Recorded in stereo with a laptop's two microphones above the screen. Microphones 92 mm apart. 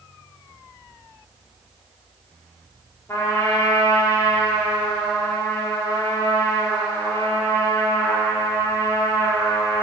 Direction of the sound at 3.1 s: 30° left (ahead or behind).